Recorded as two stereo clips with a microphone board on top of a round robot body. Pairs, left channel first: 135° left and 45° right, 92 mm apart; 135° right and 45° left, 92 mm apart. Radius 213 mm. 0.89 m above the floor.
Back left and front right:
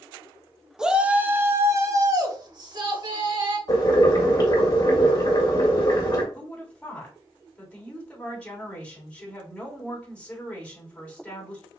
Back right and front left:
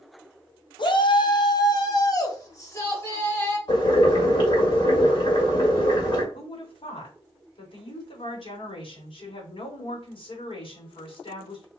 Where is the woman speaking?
145° right, 3 m.